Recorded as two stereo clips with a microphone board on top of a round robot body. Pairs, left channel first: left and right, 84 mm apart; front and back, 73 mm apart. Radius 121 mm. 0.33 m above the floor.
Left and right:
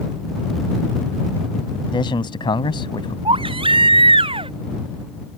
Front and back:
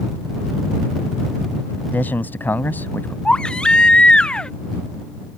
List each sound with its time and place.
1.9 s a man speaking: 65° left
3.2 s a baby crying: 80° right